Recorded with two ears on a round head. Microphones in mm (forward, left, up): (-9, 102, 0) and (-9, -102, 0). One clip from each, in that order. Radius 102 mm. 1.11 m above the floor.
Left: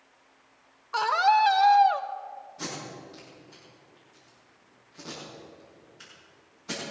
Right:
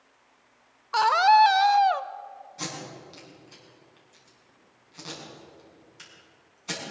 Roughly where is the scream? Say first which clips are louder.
Right 4 dB; centre.